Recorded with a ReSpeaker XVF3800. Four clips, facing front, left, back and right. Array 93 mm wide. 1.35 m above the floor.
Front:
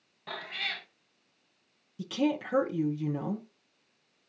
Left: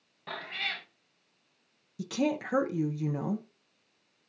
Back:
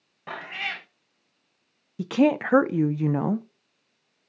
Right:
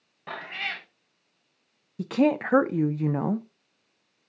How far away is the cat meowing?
About 0.6 m.